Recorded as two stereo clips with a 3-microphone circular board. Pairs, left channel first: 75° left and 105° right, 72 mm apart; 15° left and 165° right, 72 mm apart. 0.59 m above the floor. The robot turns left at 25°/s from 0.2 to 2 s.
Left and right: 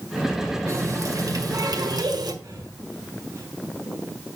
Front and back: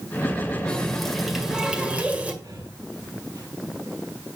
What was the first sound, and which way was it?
A running tap, 60° right.